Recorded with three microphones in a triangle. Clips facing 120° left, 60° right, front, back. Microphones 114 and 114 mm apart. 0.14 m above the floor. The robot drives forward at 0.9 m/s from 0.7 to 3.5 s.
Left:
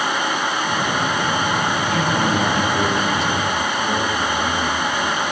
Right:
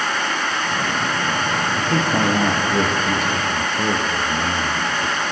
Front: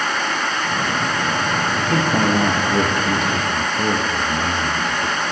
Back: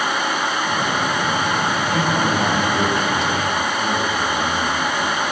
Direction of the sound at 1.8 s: 20° right.